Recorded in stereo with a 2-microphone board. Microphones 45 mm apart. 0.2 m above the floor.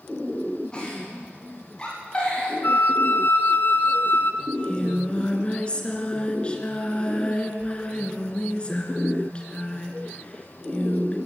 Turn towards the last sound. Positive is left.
turn(degrees=25)  # may be behind; listen again after turning